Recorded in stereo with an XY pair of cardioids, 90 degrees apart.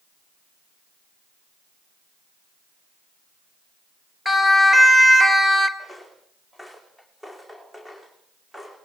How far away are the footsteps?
About 5.5 m.